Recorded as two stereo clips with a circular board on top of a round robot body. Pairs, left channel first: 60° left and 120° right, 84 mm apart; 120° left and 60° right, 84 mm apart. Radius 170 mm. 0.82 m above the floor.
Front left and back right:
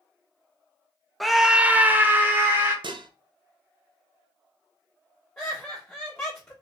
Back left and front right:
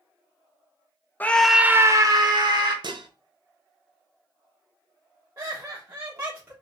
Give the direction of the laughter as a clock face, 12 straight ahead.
1 o'clock.